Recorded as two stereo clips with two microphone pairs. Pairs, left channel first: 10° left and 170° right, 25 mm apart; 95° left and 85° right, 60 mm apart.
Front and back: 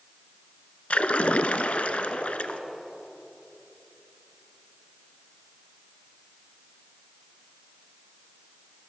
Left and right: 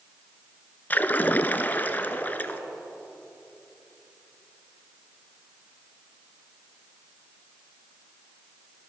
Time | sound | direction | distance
0.9 | a splash | 35° left | 0.6 m